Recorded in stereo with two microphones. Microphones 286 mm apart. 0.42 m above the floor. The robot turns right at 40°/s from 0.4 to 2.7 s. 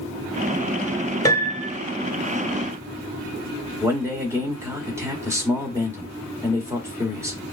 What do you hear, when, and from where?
1.2 s a piano: 10° left (ahead or behind), 0.9 m; by 1.8 s 10° right (ahead or behind), 0.9 m
3.8 s a man speaking: 10° right (ahead or behind), 1.4 m